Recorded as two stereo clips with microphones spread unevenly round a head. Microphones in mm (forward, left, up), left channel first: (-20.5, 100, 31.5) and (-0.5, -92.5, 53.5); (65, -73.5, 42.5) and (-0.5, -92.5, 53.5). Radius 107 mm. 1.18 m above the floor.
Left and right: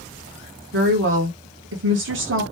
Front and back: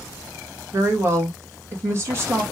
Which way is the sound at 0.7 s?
110° right.